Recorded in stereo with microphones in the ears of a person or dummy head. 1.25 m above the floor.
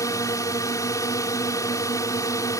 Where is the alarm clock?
I don't hear an alarm clock.